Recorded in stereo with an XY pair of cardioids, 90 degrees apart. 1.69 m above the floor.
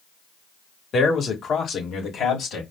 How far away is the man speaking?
About 1.8 m.